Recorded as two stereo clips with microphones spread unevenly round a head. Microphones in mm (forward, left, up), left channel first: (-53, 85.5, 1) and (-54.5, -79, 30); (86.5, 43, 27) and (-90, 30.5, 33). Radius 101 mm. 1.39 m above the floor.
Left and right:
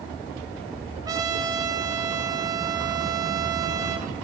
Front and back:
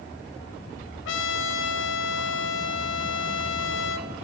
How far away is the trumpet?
About 0.9 m.